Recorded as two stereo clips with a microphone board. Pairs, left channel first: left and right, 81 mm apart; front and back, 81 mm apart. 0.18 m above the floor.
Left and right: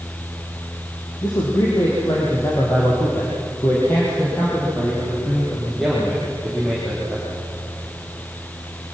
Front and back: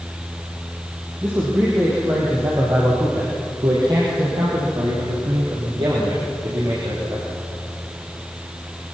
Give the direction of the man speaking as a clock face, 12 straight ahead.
8 o'clock.